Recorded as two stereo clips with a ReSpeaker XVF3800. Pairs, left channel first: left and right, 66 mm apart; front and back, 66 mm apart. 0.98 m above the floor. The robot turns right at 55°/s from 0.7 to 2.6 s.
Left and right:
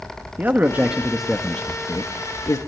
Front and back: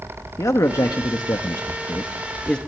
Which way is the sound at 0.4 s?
30° right.